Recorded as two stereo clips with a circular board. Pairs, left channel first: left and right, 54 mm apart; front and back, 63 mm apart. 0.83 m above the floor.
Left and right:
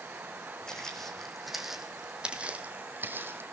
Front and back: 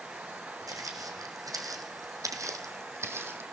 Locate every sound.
0.7 s footsteps: 165° left, 3 m; by 3.4 s 130° right, 2.5 m